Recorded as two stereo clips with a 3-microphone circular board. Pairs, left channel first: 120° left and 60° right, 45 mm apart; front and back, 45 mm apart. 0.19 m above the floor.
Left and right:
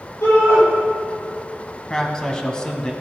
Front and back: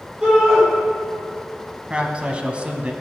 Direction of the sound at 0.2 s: 105° left.